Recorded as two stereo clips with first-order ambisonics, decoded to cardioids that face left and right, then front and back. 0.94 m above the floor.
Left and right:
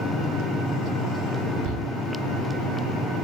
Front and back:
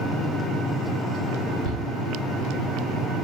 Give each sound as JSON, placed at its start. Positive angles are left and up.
{"t": 1.6, "sound": "a shout", "azimuth_deg": -120, "distance_m": 5.0}